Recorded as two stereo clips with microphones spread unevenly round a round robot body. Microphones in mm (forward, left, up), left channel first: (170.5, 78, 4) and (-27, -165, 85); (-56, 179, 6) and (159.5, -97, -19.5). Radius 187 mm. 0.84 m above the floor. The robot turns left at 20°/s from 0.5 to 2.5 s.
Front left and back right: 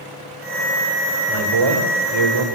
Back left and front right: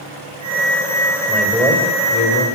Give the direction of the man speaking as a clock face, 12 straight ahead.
5 o'clock.